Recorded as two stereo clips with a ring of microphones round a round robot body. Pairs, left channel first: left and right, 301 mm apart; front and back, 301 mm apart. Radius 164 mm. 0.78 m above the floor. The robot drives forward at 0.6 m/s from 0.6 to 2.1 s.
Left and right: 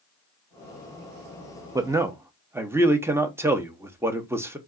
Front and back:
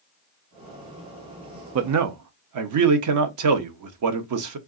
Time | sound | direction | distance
1.8 | a man speaking | 165° right | 0.5 m